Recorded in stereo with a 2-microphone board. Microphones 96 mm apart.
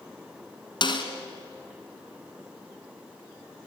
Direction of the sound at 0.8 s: 55° left (ahead or behind).